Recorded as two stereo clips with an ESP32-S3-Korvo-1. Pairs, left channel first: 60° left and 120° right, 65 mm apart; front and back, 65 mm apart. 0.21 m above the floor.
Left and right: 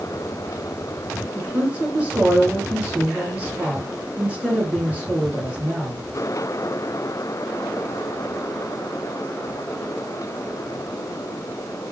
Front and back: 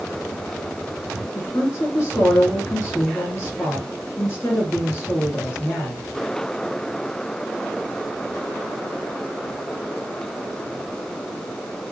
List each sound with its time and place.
1.4 s a woman speaking: 50° right, 3 m